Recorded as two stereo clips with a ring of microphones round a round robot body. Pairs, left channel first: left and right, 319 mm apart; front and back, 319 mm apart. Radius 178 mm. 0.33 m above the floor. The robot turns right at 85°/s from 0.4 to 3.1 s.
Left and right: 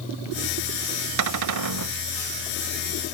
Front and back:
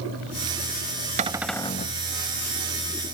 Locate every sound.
1.2 s a cupboard door: 115° right; by 2.0 s 50° right